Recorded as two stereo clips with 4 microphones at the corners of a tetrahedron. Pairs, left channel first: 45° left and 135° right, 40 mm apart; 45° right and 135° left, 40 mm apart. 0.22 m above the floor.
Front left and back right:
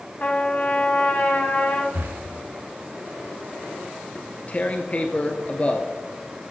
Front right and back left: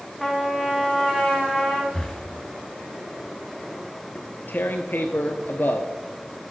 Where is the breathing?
125° right, 1.2 m.